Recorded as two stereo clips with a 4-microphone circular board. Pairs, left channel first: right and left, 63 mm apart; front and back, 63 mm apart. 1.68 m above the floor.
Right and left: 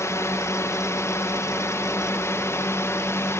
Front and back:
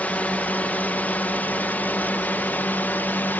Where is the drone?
65° right; by 3.4 s 60° right.